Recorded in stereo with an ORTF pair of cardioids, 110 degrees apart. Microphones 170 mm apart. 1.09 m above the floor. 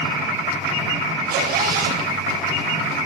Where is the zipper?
60° right, 4 m.